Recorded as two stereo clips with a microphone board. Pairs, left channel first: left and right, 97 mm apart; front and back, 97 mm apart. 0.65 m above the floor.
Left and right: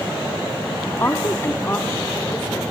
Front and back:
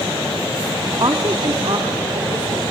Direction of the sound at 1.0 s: 150° left.